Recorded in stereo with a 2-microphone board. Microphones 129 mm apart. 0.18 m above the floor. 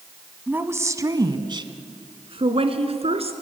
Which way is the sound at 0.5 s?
15° right (ahead or behind).